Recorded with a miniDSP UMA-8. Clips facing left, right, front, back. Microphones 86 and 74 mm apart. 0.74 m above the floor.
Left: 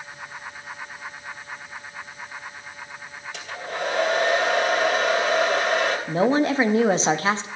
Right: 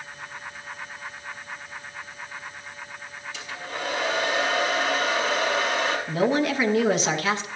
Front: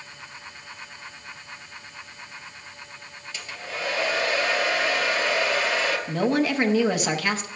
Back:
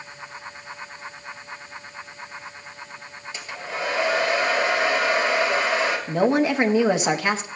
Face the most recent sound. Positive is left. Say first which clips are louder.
# left 3 dB, back 4 dB
turn(degrees=125)